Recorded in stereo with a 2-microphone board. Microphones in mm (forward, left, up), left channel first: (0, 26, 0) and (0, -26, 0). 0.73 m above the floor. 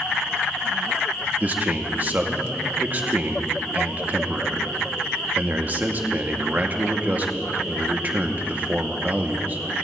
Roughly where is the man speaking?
Right.